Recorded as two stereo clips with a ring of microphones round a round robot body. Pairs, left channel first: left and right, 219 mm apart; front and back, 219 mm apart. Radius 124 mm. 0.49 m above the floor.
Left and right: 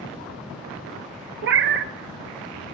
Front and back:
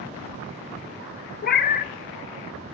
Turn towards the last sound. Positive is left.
turn(degrees=-50)